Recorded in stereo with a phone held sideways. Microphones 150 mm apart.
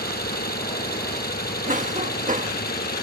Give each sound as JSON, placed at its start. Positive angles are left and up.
{"t": 0.0, "sound": "an engine running", "side_deg": 75}
{"t": 1.7, "sound": "a cough", "side_deg": -55}